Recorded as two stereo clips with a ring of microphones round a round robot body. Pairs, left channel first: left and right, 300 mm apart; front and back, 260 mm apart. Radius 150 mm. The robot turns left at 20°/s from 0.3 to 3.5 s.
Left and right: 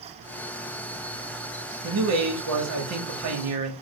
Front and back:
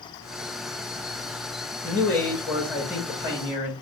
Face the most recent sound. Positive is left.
turn(degrees=-110)